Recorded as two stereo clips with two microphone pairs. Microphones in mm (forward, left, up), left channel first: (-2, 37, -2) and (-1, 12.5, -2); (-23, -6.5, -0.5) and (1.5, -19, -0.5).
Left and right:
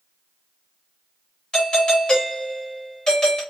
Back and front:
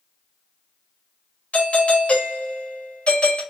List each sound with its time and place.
1.5 s a doorbell: 145° left, 2 m